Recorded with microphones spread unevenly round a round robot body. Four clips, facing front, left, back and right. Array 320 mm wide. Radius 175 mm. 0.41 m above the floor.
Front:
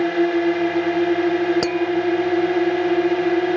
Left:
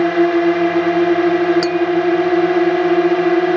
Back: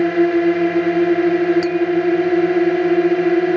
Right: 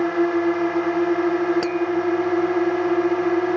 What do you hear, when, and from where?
0.0 s a drone: 130° left
1.6 s tapping: straight ahead